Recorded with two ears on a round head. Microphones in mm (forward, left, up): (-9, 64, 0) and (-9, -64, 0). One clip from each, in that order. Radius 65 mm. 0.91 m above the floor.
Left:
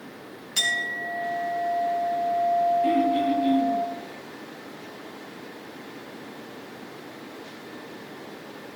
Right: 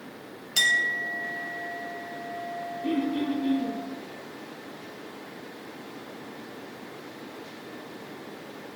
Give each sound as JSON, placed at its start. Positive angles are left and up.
{"t": 0.6, "sound": "a clink", "side_deg": -20, "distance_m": 3.0}
{"t": 2.8, "sound": "throat clearing", "side_deg": 45, "distance_m": 9.0}